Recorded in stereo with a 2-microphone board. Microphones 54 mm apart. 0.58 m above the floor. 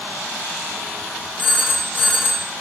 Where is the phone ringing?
35° left (ahead or behind), 3 m.